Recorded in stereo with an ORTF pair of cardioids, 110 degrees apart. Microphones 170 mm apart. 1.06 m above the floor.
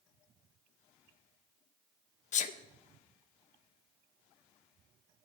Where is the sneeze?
50° left, 0.9 m.